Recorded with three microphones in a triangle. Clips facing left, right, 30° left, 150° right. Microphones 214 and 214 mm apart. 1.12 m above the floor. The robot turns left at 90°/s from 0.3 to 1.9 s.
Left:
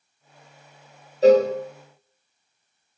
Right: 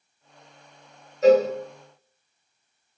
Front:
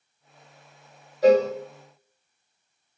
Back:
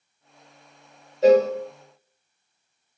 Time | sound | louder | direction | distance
1.2 | a cowbell | left 2 dB, back 2 dB | 150° left | 1.0 m